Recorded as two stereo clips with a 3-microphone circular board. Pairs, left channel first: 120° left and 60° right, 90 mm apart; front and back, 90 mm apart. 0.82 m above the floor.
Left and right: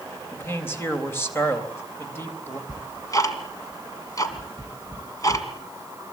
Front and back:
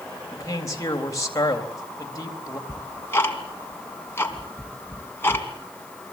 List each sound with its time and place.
0.3 s a man speaking: 55° left, 3.5 m
2.7 s ticking: 65° left, 3 m